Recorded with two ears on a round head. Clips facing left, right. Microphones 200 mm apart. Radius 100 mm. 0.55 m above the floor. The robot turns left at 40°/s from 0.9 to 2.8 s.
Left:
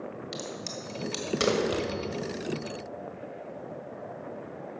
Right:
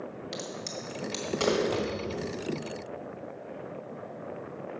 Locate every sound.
0.3 s a crack: 5° left (ahead or behind), 1.5 m; by 1.6 s 35° left (ahead or behind), 1.5 m
1.7 s a thud: 15° left (ahead or behind), 1.6 m; by 1.8 s 10° left (ahead or behind), 1.6 m